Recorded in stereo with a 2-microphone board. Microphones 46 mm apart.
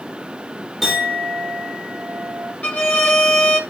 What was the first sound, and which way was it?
A clink, 5° left (ahead or behind).